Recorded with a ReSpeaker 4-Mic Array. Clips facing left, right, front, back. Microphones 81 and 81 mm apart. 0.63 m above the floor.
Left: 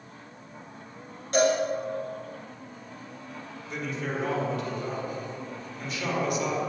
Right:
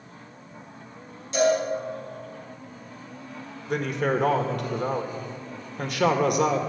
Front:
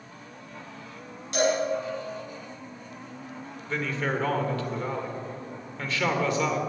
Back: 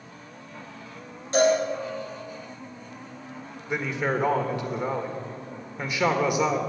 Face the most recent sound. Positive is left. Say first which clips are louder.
# right 8 dB, back 2 dB
turn(degrees=-105)